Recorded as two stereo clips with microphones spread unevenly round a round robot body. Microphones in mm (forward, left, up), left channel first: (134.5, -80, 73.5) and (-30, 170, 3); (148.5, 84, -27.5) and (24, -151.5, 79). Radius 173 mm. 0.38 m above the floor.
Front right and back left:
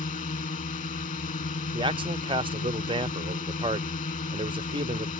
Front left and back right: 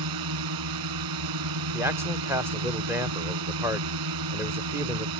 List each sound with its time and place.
0.0 s a drone: 130° right
1.7 s a man speaking: 125° left